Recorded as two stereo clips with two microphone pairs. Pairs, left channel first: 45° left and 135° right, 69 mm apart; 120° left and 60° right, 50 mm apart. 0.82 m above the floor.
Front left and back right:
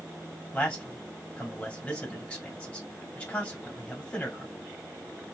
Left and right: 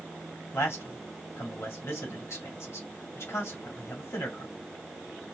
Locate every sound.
0.5 s a man speaking: 115° left, 2 m